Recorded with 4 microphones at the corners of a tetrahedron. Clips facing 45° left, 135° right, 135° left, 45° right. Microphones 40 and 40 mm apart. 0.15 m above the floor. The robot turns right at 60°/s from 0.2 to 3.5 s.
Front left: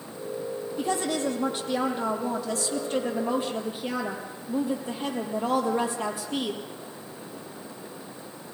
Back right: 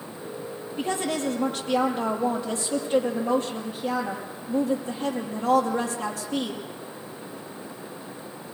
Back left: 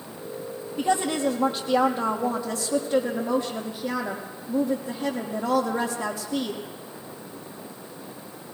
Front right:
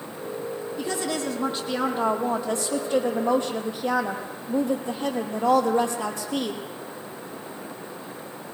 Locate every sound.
0.8 s a woman speaking: 170° left, 4.5 m; by 6.6 s 25° right, 4.5 m